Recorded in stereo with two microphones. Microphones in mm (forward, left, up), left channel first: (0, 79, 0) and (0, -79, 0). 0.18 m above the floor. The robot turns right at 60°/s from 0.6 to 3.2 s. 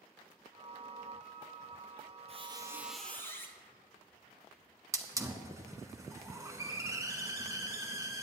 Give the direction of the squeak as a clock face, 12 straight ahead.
1 o'clock.